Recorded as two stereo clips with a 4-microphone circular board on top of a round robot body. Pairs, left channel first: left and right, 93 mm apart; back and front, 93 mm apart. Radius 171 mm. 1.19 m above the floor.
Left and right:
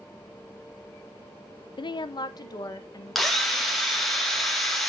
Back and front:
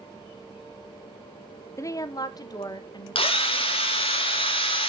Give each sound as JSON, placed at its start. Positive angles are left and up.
{"t": 1.8, "sound": "a woman speaking", "azimuth_deg": 120, "distance_m": 0.6}
{"t": 3.1, "sound": "a drill", "azimuth_deg": 175, "distance_m": 2.5}